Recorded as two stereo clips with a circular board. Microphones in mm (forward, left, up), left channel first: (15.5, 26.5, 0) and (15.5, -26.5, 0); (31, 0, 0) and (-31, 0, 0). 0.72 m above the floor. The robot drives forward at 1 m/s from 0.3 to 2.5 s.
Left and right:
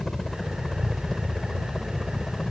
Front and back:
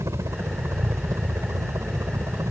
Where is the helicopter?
170° left.